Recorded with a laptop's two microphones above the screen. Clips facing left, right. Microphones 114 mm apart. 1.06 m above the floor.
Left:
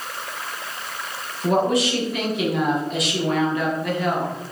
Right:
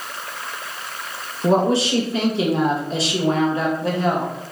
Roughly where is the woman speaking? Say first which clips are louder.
Right 2 dB; right.